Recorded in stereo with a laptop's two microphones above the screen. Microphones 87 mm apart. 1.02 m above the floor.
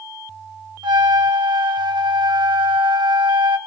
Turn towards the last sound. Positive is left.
turn(degrees=-65)  # may be behind; listen again after turning